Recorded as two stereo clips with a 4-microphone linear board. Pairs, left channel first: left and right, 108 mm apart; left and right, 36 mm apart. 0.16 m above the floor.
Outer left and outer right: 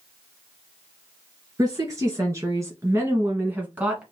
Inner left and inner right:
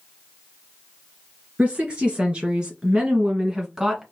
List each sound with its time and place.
1.6 s a woman speaking: 35° right (ahead or behind), 2.5 m; by 4.0 s 10° right (ahead or behind), 1.3 m